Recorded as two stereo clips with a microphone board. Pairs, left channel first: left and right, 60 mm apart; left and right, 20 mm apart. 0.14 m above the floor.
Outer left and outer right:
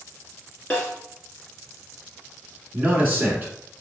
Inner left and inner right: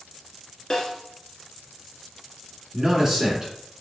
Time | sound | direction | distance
0.7 | a snare drum | 20° left (ahead or behind) | 1.9 m
2.7 | a man speaking | 35° right (ahead or behind) | 1.5 m